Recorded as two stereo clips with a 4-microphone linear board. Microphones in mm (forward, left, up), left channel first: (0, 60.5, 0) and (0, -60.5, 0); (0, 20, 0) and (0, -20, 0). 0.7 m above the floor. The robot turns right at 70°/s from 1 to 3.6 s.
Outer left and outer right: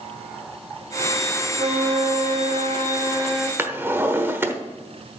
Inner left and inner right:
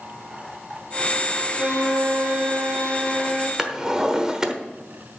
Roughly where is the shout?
I don't hear a shout.